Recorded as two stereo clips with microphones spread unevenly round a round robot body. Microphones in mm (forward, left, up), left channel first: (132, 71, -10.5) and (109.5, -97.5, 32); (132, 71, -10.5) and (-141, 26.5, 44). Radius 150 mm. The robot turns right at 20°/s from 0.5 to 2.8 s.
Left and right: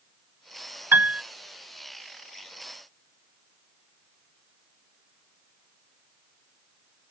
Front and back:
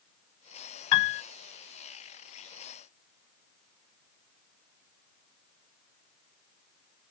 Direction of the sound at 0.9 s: 25° right.